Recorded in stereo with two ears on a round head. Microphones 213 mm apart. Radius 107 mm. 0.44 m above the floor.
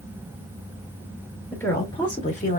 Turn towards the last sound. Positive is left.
turn(degrees=35)  # may be behind; listen again after turning